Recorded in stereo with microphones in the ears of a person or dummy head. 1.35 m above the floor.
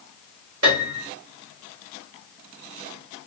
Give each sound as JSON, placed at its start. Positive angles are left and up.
{"t": 0.6, "sound": "a piano", "side_deg": -75, "distance_m": 3.5}